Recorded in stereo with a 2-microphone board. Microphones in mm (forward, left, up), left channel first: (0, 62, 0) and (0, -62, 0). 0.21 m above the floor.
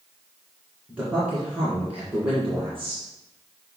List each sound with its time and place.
0.9 s a man speaking: 15° right (ahead or behind), 2.5 m